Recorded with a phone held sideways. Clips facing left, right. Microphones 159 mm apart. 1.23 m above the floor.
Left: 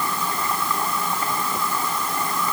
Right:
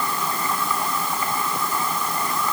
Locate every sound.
Only background noise.